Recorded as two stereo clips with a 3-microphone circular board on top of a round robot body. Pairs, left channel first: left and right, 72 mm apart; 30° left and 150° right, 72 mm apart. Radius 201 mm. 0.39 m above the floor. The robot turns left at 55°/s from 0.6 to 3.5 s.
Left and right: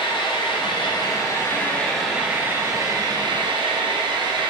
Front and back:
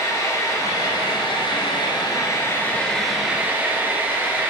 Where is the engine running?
75° left, 3 m; by 4.5 s 85° right, 3 m.